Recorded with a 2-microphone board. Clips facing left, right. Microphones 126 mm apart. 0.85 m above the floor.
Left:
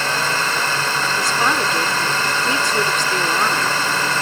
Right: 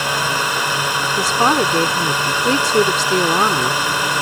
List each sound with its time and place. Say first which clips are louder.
0.0 s a drone: right 1 dB; 10° right (ahead or behind)
1.2 s a woman speaking: right 6 dB; 35° right (ahead or behind)